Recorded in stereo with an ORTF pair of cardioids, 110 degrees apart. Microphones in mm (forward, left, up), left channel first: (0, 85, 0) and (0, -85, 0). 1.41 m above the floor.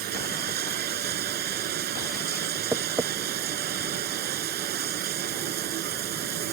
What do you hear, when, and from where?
0.0 s running water: 65° right
2.7 s tapping: 20° right